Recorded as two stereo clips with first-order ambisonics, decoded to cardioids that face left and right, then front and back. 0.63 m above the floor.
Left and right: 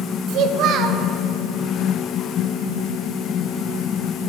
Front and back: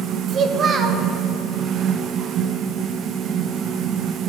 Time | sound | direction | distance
0.3 | a child speaking | 125° right | 0.6 m